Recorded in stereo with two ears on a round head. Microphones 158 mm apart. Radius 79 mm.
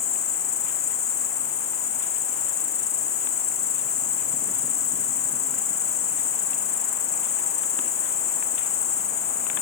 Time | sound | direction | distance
0.0 | an insect | 35° left (ahead or behind) | 2 m